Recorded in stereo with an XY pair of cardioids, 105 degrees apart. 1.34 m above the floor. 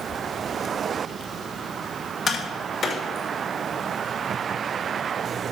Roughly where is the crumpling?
No crumpling in this recording.